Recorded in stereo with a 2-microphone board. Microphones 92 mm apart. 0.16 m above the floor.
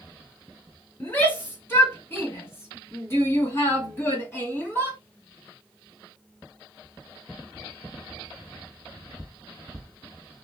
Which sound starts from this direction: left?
A shout, at 1.0 s.